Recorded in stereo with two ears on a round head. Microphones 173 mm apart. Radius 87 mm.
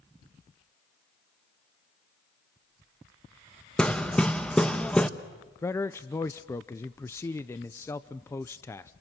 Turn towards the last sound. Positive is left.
turn(degrees=15)  # may be behind; listen again after turning